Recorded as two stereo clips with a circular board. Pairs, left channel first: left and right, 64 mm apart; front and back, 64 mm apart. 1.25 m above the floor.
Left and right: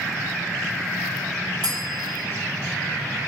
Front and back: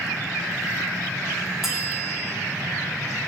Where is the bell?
95° right, 3 m.